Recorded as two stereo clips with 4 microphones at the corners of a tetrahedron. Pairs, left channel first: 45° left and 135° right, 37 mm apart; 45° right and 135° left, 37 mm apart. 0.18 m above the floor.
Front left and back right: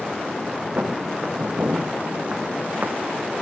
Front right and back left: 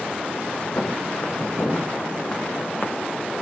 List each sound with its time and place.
0.8 s footsteps: 80° right, 3 m; by 3.0 s 85° right, 1.6 m